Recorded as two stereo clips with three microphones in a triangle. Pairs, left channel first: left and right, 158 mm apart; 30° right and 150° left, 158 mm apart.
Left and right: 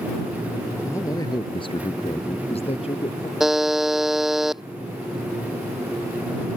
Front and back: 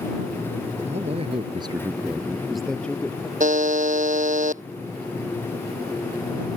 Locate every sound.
0.8 s a man speaking: 160° left; by 3.3 s 45° left
3.4 s a buzzer: straight behind